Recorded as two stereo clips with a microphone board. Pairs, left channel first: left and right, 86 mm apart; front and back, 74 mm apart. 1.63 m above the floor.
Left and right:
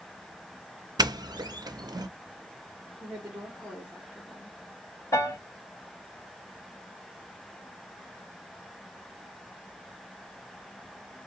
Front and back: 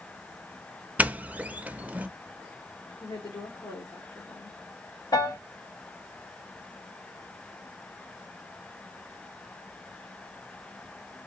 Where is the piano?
35° left, 1.3 m.